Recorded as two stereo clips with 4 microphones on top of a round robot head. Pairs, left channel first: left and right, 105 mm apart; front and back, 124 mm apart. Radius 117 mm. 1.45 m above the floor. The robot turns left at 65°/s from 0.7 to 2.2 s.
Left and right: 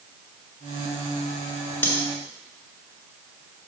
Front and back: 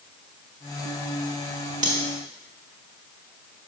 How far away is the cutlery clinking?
About 2 m.